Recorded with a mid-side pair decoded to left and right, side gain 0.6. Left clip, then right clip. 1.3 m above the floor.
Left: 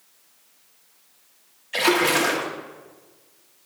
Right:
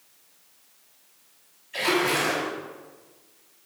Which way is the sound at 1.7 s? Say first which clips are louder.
Left 4 dB; 65° left.